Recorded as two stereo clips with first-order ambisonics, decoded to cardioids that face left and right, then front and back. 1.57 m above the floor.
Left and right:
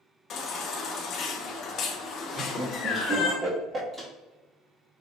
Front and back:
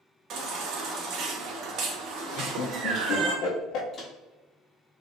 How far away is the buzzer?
I don't hear a buzzer.